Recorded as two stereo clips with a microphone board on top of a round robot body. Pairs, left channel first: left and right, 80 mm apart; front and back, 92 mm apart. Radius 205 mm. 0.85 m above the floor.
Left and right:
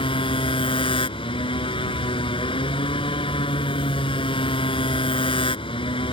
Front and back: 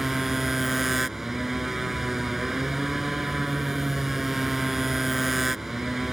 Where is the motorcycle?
90° left.